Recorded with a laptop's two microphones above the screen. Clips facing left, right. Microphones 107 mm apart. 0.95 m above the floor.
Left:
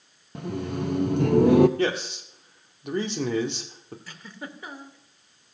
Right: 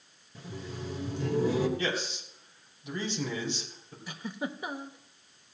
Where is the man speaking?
65° left (ahead or behind), 1.9 m.